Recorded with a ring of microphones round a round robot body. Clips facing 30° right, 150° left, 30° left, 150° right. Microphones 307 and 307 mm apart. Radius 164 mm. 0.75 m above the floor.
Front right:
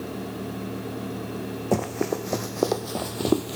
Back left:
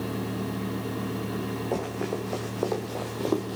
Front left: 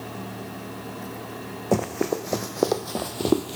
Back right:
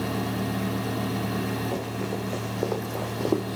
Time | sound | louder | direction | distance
1.7 | running footsteps | front right 7 dB, front left 6 dB | 5° left | 1.9 m